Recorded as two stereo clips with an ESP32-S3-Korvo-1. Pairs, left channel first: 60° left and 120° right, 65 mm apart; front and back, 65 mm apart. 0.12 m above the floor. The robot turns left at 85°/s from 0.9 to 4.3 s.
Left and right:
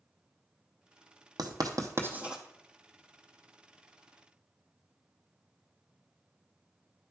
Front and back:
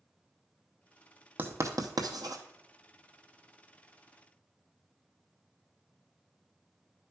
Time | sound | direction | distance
1.4 | writing | 120° right | 0.8 m